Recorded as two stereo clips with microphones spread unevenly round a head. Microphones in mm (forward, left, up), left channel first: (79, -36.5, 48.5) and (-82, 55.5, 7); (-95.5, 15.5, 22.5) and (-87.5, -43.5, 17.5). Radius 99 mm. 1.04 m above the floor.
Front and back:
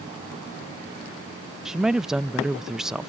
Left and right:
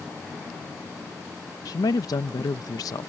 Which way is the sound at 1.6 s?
70° left.